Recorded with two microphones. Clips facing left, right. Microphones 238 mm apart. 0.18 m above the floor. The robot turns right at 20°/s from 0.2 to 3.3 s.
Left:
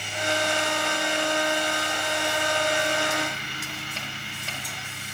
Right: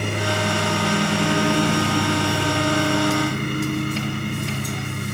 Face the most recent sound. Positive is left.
turn(degrees=-60)  # may be behind; listen again after turning